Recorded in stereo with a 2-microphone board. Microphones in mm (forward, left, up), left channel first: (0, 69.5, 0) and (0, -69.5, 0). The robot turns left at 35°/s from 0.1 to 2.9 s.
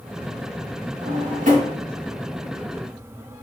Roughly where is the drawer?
Right.